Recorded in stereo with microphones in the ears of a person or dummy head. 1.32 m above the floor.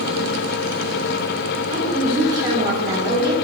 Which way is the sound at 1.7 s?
35° right (ahead or behind).